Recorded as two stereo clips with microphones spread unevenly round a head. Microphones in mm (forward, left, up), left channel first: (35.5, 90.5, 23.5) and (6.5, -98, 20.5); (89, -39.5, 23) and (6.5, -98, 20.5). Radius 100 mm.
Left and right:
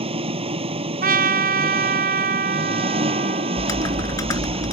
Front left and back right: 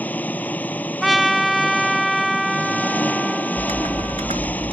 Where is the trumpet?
55° right.